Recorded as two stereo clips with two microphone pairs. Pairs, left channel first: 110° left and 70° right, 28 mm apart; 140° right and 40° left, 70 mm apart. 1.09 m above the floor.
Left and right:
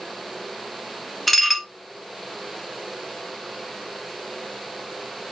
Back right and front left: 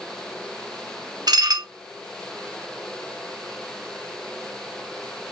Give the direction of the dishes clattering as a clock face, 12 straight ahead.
11 o'clock.